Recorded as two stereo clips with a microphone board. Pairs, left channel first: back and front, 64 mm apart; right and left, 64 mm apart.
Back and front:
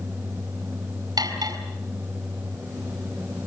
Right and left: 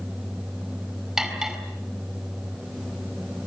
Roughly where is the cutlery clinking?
Ahead.